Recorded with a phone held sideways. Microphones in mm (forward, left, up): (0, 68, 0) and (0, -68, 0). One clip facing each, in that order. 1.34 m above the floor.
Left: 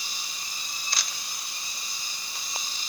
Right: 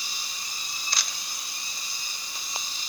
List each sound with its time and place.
Only background noise.